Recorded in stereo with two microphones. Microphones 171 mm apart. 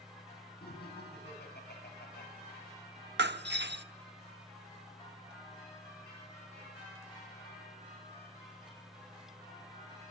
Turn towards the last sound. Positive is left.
turn(degrees=-85)